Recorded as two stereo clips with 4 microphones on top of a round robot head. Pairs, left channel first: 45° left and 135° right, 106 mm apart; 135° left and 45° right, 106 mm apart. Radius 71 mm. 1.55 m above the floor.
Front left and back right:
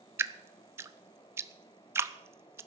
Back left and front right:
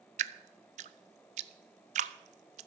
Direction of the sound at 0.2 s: 65° right.